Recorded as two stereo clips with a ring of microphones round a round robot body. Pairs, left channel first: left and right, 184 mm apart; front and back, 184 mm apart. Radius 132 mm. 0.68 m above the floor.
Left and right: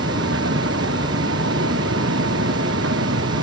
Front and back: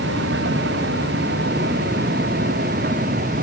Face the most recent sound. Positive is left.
turn(degrees=-120)